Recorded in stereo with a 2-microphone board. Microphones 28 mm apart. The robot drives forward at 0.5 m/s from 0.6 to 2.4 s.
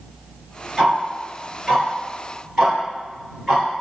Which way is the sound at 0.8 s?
20° right (ahead or behind).